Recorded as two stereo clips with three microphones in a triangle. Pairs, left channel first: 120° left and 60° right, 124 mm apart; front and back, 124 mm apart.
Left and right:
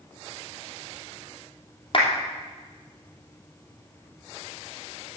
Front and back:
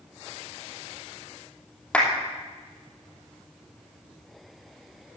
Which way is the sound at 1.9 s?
80° left.